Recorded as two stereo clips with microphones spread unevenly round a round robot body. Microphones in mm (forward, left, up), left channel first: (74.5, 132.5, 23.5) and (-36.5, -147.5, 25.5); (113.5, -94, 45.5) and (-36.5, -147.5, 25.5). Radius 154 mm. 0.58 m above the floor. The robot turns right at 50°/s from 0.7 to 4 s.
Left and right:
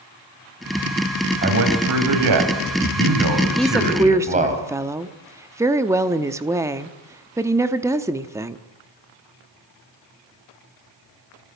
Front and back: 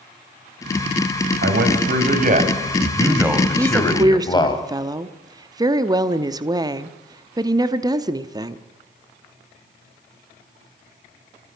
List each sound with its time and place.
1.4 s a man speaking: 175° right, 3.5 m; by 4.6 s 45° right, 3.5 m
3.6 s a woman speaking: 155° left, 0.8 m; by 8.6 s 175° left, 0.8 m